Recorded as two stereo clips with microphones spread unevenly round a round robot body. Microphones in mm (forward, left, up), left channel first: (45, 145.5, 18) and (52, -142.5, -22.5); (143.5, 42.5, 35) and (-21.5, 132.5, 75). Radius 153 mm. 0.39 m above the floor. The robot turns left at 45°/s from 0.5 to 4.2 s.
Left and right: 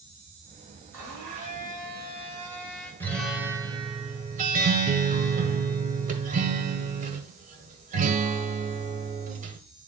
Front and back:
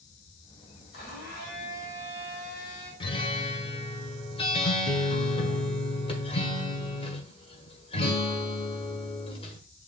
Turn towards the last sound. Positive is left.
turn(degrees=-50)